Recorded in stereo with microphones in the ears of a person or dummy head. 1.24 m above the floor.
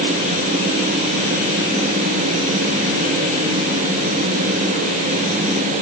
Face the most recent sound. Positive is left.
No sound to turn to.